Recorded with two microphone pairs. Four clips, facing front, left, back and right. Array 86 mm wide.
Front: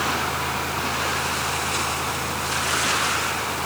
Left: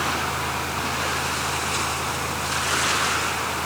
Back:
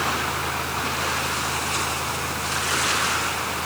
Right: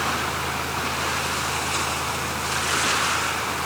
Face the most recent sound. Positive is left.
No sound to turn to.